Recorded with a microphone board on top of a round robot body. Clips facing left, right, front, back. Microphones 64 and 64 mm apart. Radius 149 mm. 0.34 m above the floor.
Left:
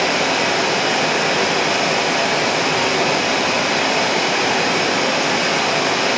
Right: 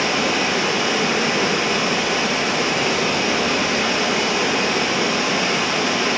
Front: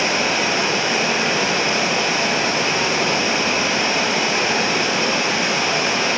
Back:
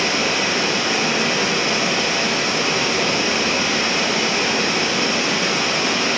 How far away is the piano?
No piano in this recording.